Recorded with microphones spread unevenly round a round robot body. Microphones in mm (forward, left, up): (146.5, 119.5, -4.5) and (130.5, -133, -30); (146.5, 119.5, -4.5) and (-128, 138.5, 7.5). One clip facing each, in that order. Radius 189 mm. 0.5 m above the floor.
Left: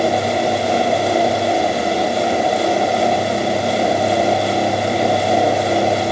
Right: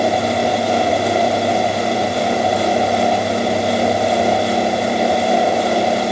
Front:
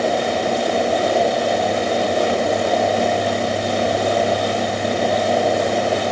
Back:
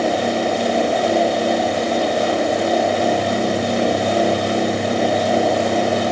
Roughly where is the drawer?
No drawer in this recording.